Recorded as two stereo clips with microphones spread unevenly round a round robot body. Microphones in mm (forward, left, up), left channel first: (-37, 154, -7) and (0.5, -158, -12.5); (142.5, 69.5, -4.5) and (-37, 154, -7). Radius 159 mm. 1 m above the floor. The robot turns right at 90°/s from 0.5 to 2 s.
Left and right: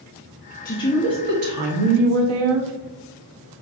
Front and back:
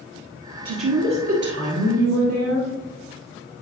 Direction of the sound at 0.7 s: 160° left.